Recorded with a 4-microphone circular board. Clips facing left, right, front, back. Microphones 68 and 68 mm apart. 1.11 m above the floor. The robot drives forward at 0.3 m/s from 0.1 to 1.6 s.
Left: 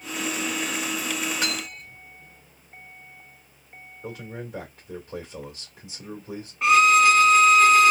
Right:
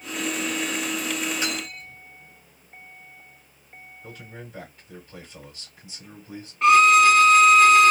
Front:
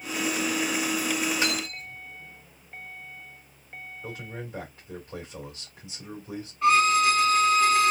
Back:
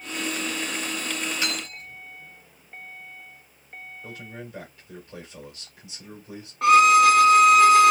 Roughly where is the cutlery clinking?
Ahead left.